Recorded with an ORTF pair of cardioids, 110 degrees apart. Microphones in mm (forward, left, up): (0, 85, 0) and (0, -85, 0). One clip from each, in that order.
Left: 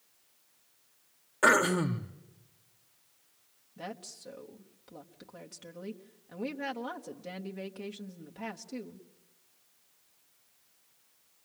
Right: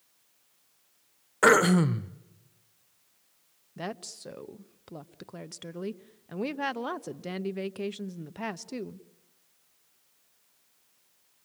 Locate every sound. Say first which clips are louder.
1.4 s throat clearing: right 3 dB; 25° right, 1.1 m
3.8 s a woman speaking: right 5 dB; 45° right, 1.1 m